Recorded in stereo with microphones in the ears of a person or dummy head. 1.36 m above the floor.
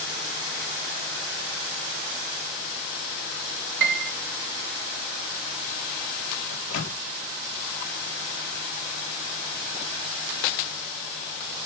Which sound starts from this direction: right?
A piano, at 3.8 s.